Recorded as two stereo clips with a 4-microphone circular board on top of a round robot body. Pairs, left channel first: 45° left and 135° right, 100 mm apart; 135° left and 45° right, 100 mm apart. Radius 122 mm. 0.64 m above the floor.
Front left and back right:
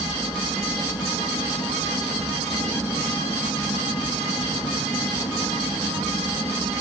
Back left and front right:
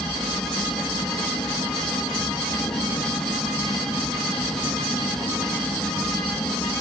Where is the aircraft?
95° left.